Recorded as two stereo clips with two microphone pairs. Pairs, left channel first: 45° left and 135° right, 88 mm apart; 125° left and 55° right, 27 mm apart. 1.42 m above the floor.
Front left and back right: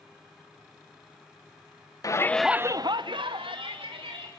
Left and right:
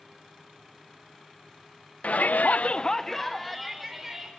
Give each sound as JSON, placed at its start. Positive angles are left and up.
{"t": 2.0, "sound": "a shout", "azimuth_deg": 95, "distance_m": 0.8}